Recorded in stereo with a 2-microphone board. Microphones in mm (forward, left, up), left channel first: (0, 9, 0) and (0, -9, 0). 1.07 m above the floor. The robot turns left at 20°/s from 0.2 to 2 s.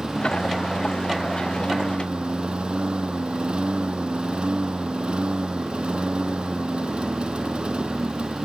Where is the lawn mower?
55° right; by 8.4 s 90° right.